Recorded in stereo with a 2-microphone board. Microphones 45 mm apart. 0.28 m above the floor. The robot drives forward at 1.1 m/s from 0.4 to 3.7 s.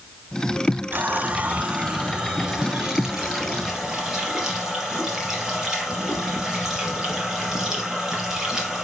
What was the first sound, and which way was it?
A running tap, 45° right (ahead or behind).